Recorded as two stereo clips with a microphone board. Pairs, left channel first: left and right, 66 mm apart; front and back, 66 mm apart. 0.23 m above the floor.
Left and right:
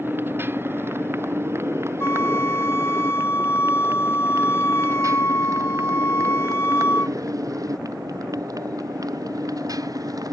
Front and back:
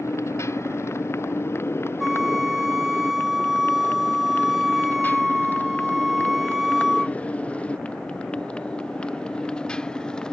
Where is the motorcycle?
35° right; by 10.3 s 75° right.